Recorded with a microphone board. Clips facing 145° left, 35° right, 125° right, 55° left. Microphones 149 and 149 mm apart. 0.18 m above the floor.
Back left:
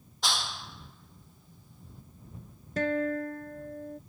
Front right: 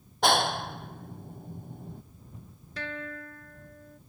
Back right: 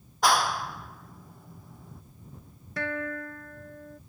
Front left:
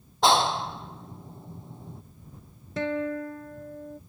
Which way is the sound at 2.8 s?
120° left.